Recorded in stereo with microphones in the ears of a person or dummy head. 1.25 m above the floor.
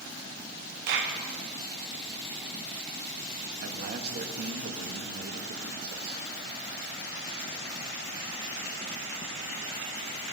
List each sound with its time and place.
0.9 s a clap: 70° right (ahead or behind), 1.9 m
3.6 s a man speaking: 55° right (ahead or behind), 1.3 m